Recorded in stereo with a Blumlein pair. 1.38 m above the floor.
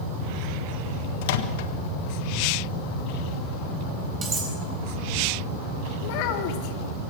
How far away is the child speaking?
About 2.0 m.